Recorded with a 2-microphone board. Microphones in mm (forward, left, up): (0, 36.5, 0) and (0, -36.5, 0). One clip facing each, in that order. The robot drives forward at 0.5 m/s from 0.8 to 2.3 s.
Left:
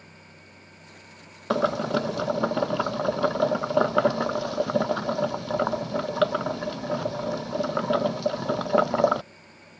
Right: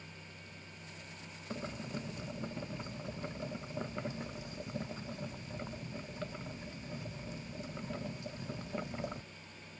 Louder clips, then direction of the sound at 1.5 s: Left 19 dB; 80° left.